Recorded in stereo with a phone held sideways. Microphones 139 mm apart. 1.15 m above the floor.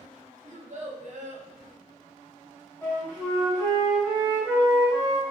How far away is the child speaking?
About 0.9 m.